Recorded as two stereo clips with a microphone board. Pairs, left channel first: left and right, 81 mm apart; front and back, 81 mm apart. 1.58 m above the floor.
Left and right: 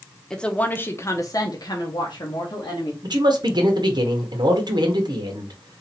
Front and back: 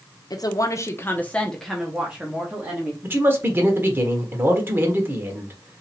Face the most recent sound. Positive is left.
turn(degrees=-120)